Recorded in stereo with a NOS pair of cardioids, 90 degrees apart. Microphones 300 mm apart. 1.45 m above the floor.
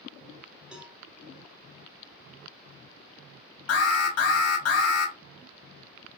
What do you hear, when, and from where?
0.7 s a cowbell: 5° right, 1.1 m
3.7 s an alarm: 60° left, 1.5 m